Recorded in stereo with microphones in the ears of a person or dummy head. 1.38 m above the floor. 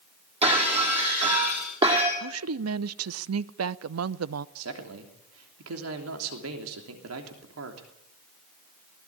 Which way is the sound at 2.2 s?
85° right.